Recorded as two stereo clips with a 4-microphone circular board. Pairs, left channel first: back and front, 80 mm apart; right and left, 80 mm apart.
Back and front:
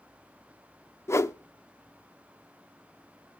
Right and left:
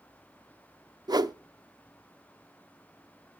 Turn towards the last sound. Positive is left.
turn(degrees=125)